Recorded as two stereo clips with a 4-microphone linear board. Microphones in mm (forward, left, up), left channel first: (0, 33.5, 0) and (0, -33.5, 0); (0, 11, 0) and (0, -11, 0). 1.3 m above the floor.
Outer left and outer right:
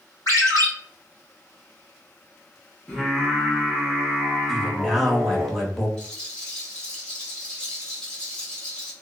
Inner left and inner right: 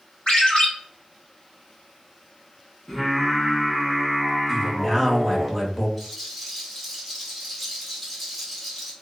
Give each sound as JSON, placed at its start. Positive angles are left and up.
{"t": 0.3, "sound": "a ringtone", "side_deg": 60, "distance_m": 1.7}
{"t": 2.9, "sound": "singing", "side_deg": 15, "distance_m": 1.0}
{"t": 4.5, "sound": "a man speaking", "side_deg": 5, "distance_m": 0.7}
{"t": 6.0, "sound": "a rattle", "side_deg": 10, "distance_m": 1.1}